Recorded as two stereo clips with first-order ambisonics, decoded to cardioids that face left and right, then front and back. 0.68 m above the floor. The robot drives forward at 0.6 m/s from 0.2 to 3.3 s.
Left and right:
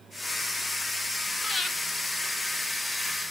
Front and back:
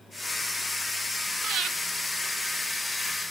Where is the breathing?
170° left, 1.0 m.